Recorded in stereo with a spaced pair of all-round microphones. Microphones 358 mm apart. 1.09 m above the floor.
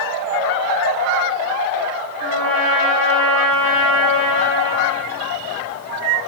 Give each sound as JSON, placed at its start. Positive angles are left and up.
{"t": 2.2, "sound": "a trumpet", "side_deg": 65, "distance_m": 3.0}